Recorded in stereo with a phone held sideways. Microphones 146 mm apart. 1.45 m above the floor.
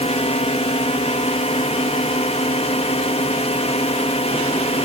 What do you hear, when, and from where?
0.0 s a drone: 45° left (ahead or behind)